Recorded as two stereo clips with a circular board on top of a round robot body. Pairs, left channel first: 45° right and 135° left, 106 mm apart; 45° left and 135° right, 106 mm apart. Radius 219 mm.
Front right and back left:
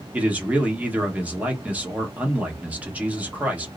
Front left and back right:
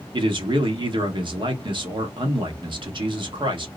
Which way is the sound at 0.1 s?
150° right.